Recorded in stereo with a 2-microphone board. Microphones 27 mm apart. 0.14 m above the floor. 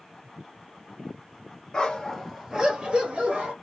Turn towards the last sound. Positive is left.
turn(degrees=-60)  # may be behind; listen again after turning